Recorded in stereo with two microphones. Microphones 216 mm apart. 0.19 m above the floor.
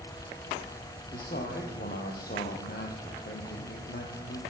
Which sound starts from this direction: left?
A man speaking, at 1.1 s.